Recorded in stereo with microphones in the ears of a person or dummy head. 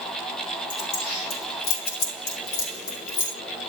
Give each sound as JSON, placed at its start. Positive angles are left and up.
{"t": 0.7, "sound": "keys jangling", "side_deg": 80, "distance_m": 3.5}